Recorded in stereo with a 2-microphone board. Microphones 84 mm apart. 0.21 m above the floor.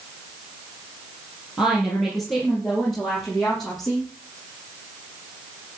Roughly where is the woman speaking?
Centre.